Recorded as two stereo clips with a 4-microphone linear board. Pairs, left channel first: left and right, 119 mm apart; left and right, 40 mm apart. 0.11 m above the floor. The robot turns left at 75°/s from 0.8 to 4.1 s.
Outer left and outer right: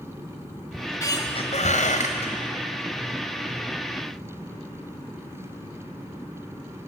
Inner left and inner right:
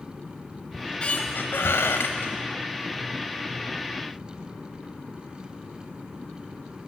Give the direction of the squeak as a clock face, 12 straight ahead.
6 o'clock.